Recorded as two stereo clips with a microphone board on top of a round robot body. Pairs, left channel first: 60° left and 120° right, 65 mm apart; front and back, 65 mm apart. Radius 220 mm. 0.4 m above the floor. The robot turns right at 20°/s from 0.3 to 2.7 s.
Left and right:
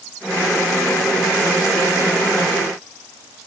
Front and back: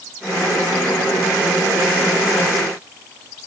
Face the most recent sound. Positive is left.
No sound to turn to.